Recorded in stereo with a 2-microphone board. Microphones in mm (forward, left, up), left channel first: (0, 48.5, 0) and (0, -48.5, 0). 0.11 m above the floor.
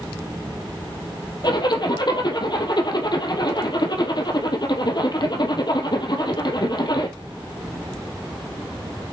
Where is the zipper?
55° left (ahead or behind), 1.6 m.